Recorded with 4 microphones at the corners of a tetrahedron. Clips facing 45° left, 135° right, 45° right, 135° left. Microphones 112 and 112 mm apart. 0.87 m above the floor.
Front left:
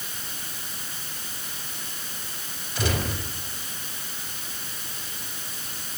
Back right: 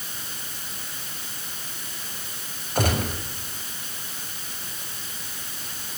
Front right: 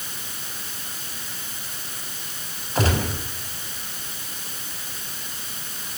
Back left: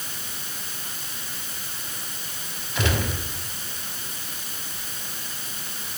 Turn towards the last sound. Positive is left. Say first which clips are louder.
# back right 3 dB, front right 3 dB
turn(degrees=-95)